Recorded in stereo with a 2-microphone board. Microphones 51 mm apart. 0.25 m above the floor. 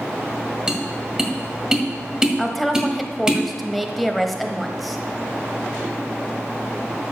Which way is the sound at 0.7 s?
15° right (ahead or behind).